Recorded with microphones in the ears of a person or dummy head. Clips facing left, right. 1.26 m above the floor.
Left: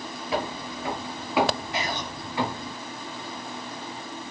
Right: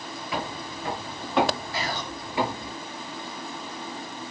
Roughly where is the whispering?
Centre.